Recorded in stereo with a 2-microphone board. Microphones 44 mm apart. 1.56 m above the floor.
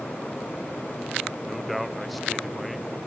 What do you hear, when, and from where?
1.5 s a man speaking: centre (ahead or behind)